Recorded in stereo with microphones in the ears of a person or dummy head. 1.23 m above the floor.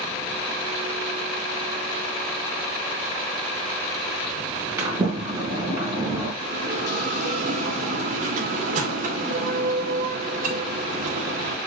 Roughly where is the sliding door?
Centre.